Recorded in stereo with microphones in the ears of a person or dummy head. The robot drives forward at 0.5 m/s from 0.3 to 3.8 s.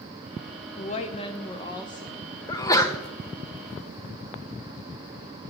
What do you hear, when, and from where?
0.8 s a woman speaking: 40° left (ahead or behind), 0.7 m; by 2.4 s 20° left (ahead or behind), 1.4 m
2.5 s a sneeze: 20° left (ahead or behind), 0.6 m; by 3.0 s 15° left (ahead or behind), 0.8 m